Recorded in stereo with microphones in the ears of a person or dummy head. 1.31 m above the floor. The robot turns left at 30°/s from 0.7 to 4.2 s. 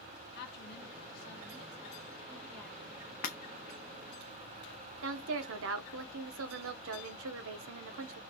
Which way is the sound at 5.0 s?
70° right (ahead or behind).